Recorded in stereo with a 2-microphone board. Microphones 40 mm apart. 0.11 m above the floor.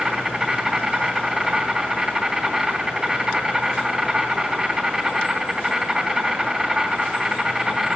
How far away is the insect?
About 4 m.